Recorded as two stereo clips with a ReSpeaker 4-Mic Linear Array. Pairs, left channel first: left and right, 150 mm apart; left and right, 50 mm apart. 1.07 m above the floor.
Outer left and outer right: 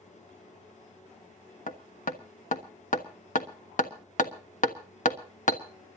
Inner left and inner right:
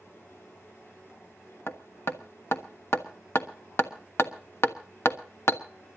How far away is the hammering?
About 1.3 m.